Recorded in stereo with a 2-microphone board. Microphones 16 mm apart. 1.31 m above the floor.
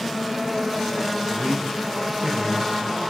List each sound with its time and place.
1.3 s a man speaking: 50° right (ahead or behind), 8.5 m; by 3.1 s 40° right (ahead or behind), 8 m